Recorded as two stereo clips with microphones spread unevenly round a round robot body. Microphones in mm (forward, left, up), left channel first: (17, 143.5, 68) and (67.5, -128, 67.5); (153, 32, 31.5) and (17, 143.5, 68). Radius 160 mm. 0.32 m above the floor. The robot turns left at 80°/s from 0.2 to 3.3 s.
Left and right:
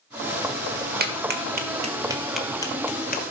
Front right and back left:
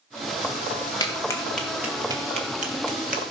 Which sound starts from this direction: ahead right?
A clap, at 1.0 s.